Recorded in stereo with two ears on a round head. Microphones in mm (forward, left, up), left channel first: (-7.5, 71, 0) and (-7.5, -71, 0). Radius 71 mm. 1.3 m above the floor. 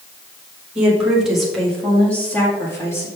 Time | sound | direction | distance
0.8 | a woman speaking | 10° right (ahead or behind) | 2 m